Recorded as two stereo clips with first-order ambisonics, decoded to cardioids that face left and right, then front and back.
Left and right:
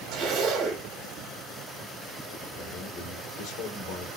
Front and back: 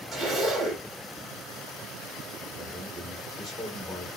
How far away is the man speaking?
About 2.0 m.